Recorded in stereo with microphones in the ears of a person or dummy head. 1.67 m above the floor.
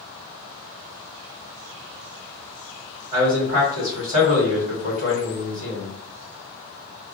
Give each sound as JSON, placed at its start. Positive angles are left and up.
{"t": 3.1, "sound": "a man speaking", "side_deg": -45, "distance_m": 1.8}